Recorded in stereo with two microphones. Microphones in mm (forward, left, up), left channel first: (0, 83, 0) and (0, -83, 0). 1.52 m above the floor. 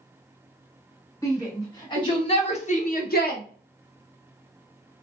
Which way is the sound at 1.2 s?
20° left (ahead or behind).